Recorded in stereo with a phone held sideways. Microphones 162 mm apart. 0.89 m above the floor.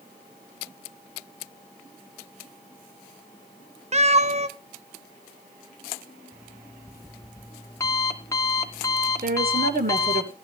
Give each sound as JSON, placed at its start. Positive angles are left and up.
{"t": 3.9, "sound": "a cat meowing", "side_deg": -40, "distance_m": 0.6}
{"t": 6.3, "sound": "an alarm clock", "side_deg": 20, "distance_m": 1.2}
{"t": 9.2, "sound": "a woman speaking", "side_deg": -65, "distance_m": 2.5}